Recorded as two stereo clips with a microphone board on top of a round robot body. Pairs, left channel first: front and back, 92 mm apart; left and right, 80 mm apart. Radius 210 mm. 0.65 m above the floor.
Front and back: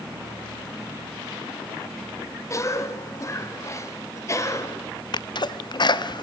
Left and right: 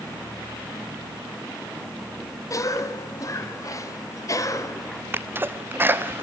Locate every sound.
2.5 s a cough: 50° left, 2 m
5.1 s a sneeze: 30° right, 1.4 m